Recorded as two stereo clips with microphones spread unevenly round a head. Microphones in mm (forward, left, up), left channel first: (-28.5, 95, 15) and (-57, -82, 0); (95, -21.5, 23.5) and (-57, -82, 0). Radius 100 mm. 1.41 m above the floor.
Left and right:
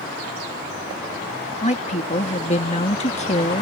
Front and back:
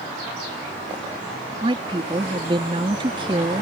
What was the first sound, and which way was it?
A woman speaking, 135° left.